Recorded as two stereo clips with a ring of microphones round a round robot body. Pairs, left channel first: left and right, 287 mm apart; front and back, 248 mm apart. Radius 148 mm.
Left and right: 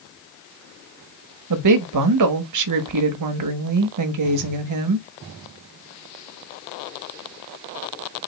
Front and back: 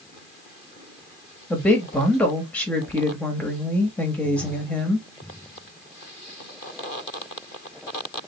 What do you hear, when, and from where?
1.5 s a woman speaking: 85° right, 1.0 m